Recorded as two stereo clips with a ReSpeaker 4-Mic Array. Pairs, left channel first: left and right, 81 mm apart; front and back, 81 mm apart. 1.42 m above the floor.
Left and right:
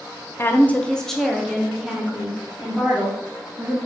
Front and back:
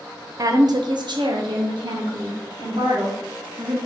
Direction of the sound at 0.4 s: 145° left.